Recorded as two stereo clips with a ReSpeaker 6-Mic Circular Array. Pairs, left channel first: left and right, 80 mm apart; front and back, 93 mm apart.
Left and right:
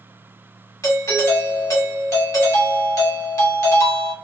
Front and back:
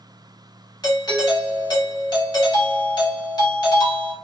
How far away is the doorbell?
About 1.2 m.